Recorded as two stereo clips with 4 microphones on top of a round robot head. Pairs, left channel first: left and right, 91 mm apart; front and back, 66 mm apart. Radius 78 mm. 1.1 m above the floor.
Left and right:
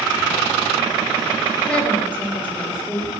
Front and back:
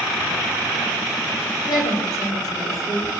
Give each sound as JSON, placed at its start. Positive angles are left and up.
{"t": 1.7, "sound": "a woman speaking", "azimuth_deg": 10, "distance_m": 5.0}